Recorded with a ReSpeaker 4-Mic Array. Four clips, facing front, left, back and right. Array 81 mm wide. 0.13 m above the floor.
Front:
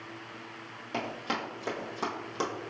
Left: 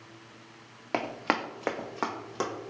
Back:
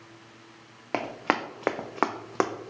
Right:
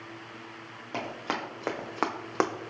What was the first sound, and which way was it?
Running footsteps, 145° left.